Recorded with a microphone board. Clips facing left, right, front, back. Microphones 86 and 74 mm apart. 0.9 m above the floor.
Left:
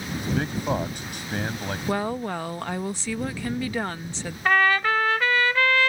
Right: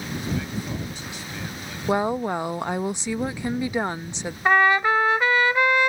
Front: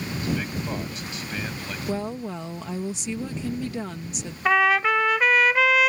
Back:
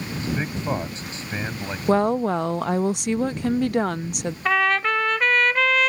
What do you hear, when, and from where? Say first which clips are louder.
0.2 s a man speaking: left 3 dB, back 1 dB; 120° left
1.9 s a woman speaking: right 5 dB, back 11 dB; 160° right
4.5 s a trumpet: right 2 dB, front 1 dB; 70° right